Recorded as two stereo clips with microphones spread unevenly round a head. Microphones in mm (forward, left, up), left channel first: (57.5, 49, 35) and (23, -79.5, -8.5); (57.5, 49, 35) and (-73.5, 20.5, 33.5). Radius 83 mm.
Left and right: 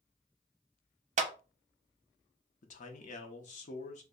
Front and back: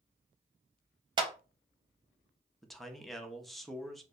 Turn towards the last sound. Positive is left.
turn(degrees=100)